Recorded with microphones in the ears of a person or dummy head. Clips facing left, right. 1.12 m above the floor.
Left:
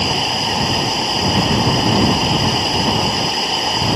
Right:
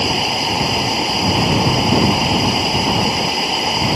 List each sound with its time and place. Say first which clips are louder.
0.0 s running water: right 1 dB; 5° right (ahead or behind)